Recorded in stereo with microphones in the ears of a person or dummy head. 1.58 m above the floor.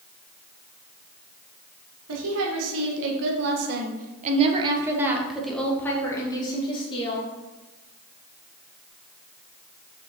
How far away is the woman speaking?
About 2 m.